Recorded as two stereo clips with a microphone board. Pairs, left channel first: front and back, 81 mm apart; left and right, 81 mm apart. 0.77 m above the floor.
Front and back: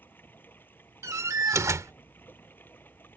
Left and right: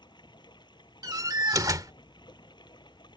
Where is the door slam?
130° right.